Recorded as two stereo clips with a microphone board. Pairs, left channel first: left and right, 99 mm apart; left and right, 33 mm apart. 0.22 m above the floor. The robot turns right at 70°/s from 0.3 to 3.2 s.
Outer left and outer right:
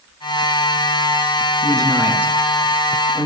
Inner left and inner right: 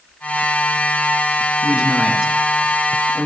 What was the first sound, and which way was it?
A man speaking, 50° right (ahead or behind).